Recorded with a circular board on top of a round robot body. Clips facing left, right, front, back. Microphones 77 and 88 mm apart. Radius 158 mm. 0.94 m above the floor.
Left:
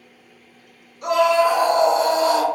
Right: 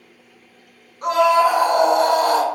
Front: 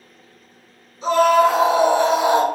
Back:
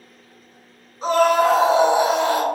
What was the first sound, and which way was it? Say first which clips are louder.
A scream: right 1 dB, front 2 dB; 135° right.